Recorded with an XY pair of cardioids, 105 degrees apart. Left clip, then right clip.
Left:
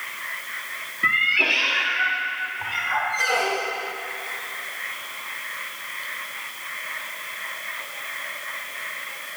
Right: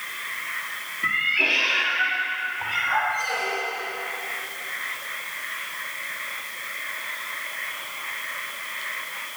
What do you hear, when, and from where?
1.0 s a cat meowing: 35° left, 1.4 m; by 3.0 s 10° right, 3 m
3.1 s a squeak: 50° left, 0.8 m